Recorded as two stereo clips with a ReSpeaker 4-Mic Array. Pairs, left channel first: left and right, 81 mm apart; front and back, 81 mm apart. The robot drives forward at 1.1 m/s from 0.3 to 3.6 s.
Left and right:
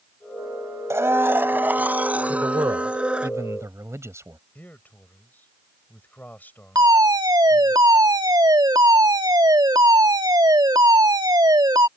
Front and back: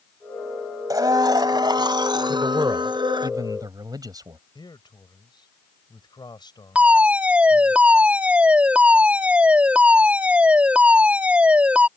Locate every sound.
0.9 s a blender: 140° right; by 3.3 s 165° right
2.3 s a man speaking: 125° right; by 4.4 s 145° right
4.5 s a man speaking: 20° left
6.8 s a fire alarm: 110° right